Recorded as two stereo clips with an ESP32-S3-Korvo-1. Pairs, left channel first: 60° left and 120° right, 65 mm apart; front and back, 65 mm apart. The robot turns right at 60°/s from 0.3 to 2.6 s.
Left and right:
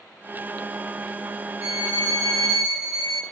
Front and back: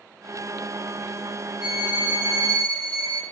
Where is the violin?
100° left, 3 m; by 3.2 s 160° left, 3 m.